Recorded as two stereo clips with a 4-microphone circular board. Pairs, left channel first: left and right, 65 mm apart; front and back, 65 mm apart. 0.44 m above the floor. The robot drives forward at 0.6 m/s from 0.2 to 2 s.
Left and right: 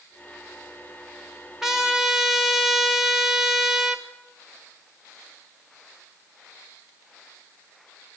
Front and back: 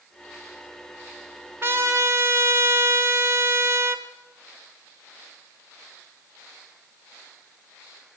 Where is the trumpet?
170° right, 1.1 m; by 4.0 s 175° right, 1.2 m.